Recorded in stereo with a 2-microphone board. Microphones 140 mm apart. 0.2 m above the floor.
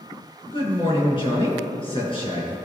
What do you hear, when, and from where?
0.5 s a man speaking: 40° left (ahead or behind), 3 m